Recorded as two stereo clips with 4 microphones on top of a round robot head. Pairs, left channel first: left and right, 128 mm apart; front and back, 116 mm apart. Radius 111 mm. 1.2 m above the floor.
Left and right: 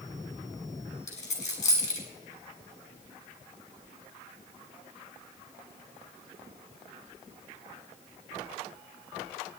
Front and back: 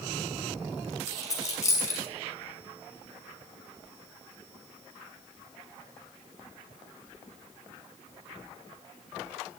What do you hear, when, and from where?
1.1 s a dropped coin: 60° left, 6 m